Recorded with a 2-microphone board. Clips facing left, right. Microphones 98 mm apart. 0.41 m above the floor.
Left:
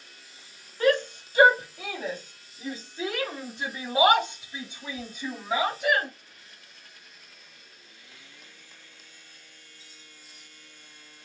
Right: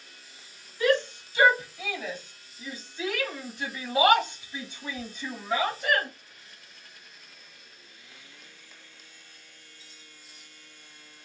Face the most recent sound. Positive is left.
turn(degrees=10)  # may be behind; listen again after turning